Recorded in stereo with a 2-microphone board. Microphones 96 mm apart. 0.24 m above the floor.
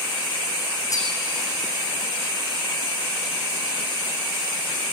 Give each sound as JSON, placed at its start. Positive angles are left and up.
{"t": 0.9, "sound": "cutlery clinking", "side_deg": 40, "distance_m": 7.5}